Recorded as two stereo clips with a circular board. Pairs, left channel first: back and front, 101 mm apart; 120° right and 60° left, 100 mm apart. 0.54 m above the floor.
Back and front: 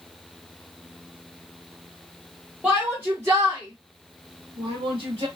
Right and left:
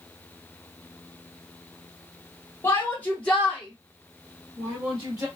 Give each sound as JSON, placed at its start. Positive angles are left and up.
{"t": 2.6, "sound": "a shout", "azimuth_deg": -75, "distance_m": 1.2}